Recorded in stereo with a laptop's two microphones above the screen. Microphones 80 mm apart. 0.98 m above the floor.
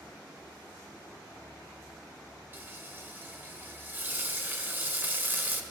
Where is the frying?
25° right (ahead or behind), 1.0 m.